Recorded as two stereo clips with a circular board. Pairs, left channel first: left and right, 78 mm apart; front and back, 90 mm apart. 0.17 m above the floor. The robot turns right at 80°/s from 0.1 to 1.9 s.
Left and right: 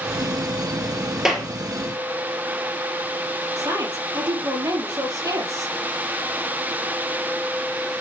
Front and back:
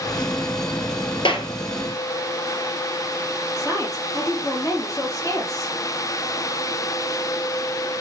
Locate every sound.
1.2 s a clap: 5° right, 3 m; by 1.5 s 10° left, 3 m
3.6 s a woman speaking: 50° right, 5 m